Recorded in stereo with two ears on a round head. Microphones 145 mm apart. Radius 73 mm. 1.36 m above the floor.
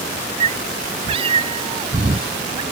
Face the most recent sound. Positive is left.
turn(degrees=-25)  # may be behind; listen again after turning